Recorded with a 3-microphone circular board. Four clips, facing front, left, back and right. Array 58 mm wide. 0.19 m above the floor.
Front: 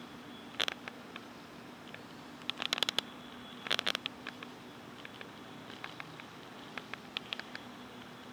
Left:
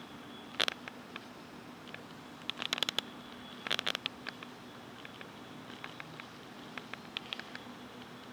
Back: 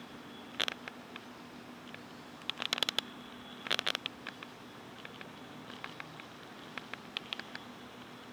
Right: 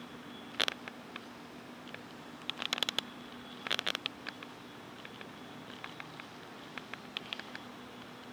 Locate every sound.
Only background noise.